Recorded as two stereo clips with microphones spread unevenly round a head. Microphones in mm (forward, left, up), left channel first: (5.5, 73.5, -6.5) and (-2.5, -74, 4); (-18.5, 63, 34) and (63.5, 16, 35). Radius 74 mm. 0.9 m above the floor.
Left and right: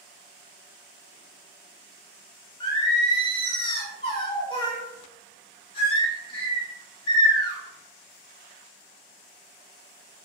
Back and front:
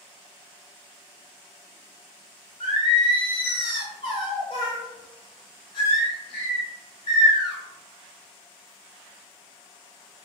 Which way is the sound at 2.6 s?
135° left.